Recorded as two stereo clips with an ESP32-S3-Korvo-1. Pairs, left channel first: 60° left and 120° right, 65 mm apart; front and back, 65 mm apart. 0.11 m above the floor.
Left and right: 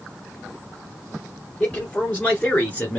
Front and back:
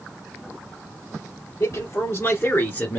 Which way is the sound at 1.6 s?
5° right.